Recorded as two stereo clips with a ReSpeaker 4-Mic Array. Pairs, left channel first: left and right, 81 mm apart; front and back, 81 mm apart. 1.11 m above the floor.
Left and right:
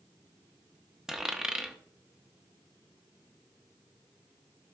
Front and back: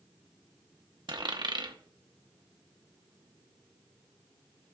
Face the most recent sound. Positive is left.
turn(degrees=-170)